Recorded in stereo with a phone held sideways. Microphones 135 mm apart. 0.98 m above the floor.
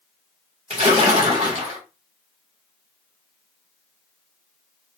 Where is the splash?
50° right (ahead or behind), 3 m.